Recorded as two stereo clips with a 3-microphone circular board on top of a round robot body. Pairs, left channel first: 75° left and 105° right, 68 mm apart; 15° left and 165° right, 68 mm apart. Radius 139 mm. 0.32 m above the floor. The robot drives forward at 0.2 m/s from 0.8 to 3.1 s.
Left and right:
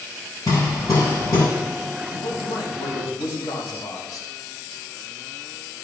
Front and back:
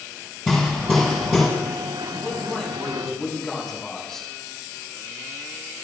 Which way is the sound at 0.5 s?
110° left.